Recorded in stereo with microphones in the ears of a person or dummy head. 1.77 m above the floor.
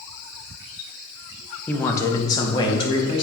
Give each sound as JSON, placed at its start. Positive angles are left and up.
{"t": 1.7, "sound": "a man speaking", "side_deg": 10, "distance_m": 0.9}